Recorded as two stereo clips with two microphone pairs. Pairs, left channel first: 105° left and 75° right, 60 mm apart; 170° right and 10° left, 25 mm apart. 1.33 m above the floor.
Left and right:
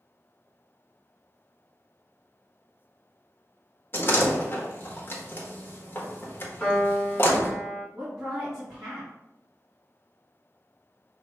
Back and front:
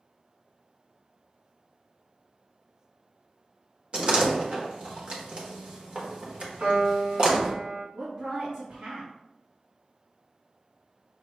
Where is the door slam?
55° left, 1.0 m.